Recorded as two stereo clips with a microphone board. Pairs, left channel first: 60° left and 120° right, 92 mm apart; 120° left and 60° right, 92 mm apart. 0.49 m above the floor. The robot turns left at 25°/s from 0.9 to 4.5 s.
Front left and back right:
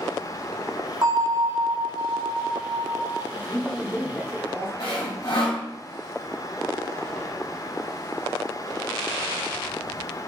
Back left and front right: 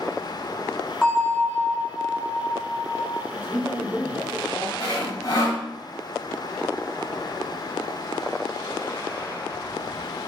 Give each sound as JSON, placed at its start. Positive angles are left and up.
{"t": 1.0, "sound": "a bell", "azimuth_deg": -160, "distance_m": 0.8}
{"t": 3.3, "sound": "a man speaking", "azimuth_deg": 20, "distance_m": 1.8}
{"t": 4.8, "sound": "sawing", "azimuth_deg": 75, "distance_m": 1.9}